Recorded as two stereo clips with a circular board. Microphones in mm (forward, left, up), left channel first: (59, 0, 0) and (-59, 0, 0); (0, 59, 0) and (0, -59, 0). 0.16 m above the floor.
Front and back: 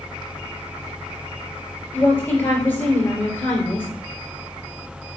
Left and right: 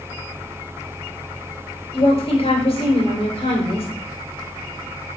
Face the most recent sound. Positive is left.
turn(degrees=70)